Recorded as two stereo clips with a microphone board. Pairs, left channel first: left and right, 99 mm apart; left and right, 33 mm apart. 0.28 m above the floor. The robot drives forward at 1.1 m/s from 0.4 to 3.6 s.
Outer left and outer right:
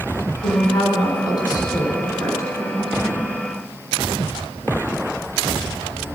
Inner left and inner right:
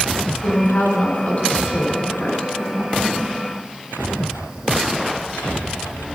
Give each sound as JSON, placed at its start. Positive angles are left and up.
{"t": 0.4, "sound": "a woman speaking", "side_deg": 60, "distance_m": 2.0}